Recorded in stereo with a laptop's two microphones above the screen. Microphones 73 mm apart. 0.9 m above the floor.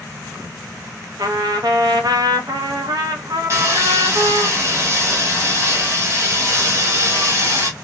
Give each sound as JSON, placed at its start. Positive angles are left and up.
{"t": 1.2, "sound": "a trumpet", "side_deg": -65, "distance_m": 0.8}
{"t": 3.5, "sound": "sawing", "side_deg": -40, "distance_m": 1.2}